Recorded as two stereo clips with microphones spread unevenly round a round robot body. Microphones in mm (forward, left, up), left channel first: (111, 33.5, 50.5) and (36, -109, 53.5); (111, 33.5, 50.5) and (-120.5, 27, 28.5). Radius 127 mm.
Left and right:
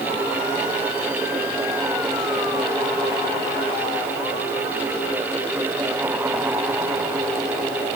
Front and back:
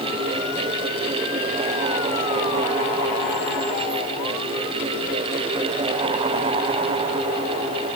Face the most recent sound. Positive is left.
No sound to turn to.